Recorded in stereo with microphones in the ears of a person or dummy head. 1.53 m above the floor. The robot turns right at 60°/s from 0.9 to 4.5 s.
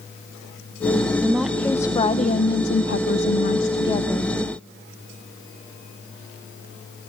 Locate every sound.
1.2 s a woman speaking: 15° right, 0.8 m; by 4.4 s 175° left, 0.8 m